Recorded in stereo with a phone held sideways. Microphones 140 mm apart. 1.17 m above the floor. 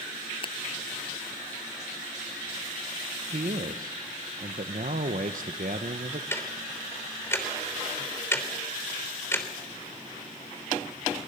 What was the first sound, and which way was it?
A finger snap, 40° left (ahead or behind).